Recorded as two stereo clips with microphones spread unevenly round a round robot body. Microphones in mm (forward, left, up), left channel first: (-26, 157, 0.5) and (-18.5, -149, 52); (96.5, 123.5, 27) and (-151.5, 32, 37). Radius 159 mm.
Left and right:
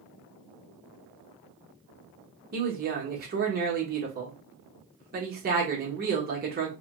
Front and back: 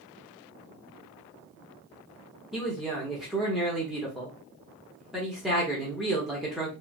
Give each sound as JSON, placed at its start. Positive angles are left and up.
{"t": 2.5, "sound": "a man speaking", "azimuth_deg": -70, "distance_m": 1.0}